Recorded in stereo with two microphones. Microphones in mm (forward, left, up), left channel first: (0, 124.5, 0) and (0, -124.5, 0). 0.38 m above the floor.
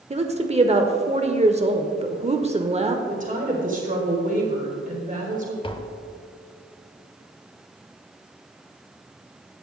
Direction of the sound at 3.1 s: 30° right (ahead or behind).